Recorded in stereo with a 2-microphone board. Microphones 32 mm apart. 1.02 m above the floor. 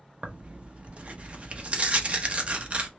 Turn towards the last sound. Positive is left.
turn(degrees=-45)  # may be behind; listen again after turning